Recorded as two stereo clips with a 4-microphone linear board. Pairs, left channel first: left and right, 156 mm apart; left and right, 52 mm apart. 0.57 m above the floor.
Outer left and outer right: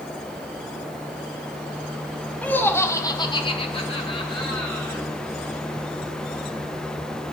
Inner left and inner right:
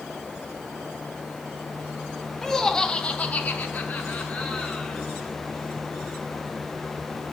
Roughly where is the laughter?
Centre.